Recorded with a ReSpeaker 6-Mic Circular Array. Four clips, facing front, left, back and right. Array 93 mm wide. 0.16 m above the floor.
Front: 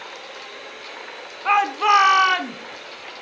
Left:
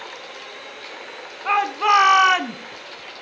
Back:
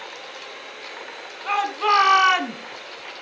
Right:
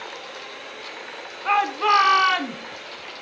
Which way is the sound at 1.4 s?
10° left.